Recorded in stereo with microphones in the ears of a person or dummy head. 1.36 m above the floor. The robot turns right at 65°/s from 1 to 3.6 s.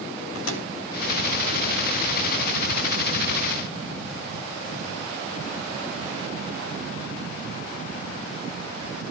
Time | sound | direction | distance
0.3 | a microwave | 85° left | 3 m